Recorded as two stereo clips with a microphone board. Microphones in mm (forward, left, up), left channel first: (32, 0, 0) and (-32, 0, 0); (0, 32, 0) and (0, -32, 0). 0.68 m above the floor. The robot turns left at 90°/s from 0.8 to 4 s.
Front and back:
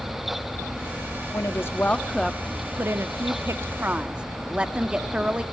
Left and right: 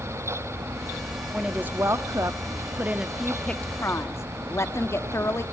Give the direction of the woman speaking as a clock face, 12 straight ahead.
12 o'clock.